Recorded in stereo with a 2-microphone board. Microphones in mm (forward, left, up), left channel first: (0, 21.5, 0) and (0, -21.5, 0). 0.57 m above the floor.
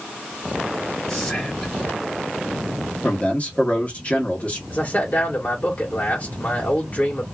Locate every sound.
1.1 s whispering: 10° left (ahead or behind), 0.8 m
3.0 s a man speaking: 30° left (ahead or behind), 1.2 m
4.7 s a man speaking: 35° left (ahead or behind), 1.3 m